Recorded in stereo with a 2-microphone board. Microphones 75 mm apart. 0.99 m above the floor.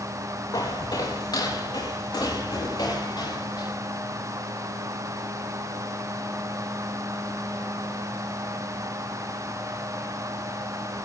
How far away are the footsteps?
About 4.5 m.